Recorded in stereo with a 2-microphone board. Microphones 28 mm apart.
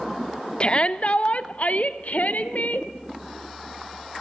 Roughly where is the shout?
Left.